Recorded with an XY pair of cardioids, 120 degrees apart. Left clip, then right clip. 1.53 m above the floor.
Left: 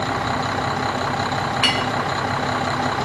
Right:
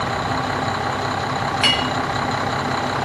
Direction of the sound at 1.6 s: Straight ahead.